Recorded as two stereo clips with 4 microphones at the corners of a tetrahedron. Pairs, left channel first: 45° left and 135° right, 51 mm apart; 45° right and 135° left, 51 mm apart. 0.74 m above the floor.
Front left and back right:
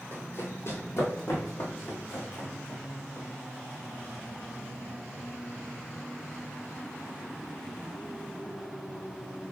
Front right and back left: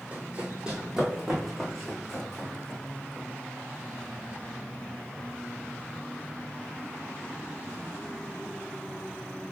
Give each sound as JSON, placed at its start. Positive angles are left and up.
{"t": 0.1, "sound": "running footsteps", "azimuth_deg": 75, "distance_m": 1.4}